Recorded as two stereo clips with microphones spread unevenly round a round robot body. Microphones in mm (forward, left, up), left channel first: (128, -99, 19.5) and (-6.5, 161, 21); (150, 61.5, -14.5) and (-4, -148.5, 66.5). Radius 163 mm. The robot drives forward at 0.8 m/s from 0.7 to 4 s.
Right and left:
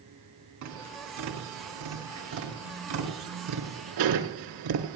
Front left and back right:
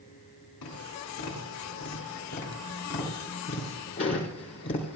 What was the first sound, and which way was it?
Tapping, 90° left.